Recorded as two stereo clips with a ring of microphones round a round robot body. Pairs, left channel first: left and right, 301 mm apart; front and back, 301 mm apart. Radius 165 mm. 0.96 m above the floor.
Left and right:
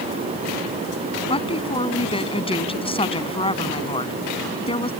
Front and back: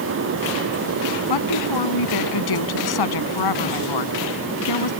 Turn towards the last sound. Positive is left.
turn(degrees=20)